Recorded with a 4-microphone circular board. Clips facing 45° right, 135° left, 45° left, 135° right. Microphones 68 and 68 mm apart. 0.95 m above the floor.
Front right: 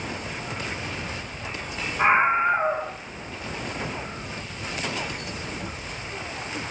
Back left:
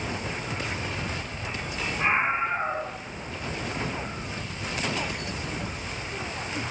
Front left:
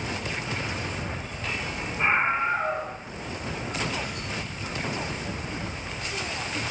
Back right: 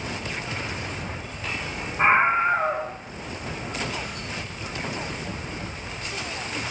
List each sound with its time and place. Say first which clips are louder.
2.0 s a scream: front right 6 dB, back right 5 dB; 95° right, 4.5 m